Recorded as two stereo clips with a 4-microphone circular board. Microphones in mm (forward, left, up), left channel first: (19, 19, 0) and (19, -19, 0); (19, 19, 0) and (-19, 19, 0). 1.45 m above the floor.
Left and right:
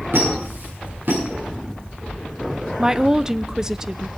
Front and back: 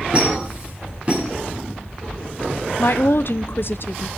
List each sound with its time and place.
0.1 s a squeak: 120° right, 9 m
2.8 s a woman speaking: 15° right, 0.6 m